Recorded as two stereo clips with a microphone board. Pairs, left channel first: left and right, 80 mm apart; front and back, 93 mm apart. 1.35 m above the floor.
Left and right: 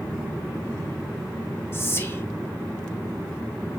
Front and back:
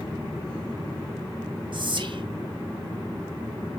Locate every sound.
1.7 s whispering: 150° left, 0.9 m